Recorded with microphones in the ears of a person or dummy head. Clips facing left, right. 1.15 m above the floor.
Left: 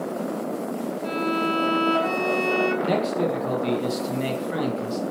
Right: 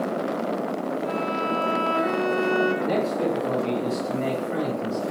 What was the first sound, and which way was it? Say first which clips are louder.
A violin: left 1 dB; 55° left (ahead or behind).